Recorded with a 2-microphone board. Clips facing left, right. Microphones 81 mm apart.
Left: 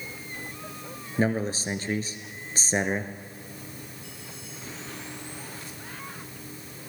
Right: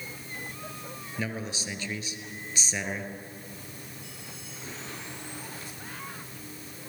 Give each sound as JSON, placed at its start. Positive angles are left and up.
{"t": 1.2, "sound": "a man speaking", "side_deg": 40, "distance_m": 1.7}